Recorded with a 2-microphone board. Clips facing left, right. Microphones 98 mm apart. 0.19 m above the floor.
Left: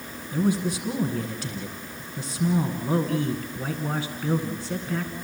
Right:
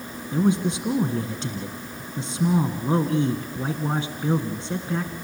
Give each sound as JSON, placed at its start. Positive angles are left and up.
{"t": 0.3, "sound": "a man speaking", "side_deg": -25, "distance_m": 1.7}